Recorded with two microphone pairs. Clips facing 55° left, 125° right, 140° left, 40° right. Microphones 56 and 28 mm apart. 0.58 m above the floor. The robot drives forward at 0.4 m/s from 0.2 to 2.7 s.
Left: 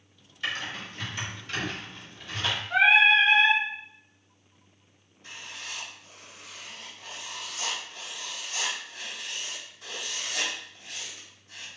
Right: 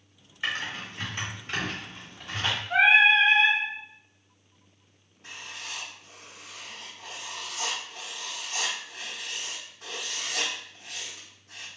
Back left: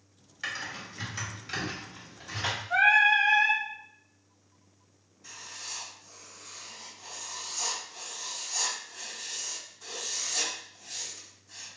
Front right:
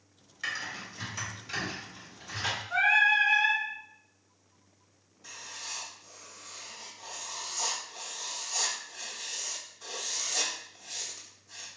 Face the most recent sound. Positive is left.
turn(degrees=-125)